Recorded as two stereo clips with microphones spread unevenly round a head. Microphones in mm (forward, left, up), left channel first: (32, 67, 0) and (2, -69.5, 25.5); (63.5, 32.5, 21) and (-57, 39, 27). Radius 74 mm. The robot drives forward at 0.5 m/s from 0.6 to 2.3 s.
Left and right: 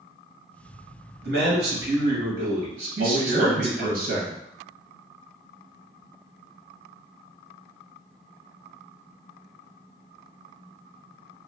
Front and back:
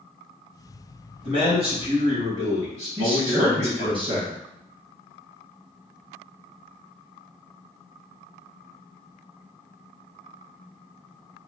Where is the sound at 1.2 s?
125° right, 1.6 m; by 4.0 s 140° right, 1.9 m.